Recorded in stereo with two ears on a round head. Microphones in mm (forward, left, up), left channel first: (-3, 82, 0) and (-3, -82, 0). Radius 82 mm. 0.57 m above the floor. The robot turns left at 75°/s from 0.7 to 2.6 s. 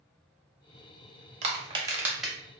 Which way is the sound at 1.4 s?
40° right (ahead or behind).